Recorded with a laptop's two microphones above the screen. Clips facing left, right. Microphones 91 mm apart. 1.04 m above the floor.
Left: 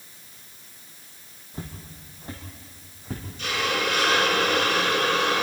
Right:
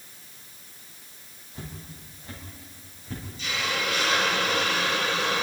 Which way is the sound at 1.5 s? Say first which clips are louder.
Left 2 dB; 40° left (ahead or behind).